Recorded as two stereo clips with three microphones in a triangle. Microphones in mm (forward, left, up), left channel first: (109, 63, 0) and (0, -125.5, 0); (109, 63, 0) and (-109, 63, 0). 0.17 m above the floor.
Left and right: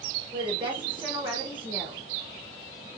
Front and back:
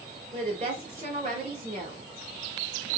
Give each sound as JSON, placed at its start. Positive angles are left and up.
{"t": 0.3, "sound": "a woman speaking", "azimuth_deg": -165, "distance_m": 1.9}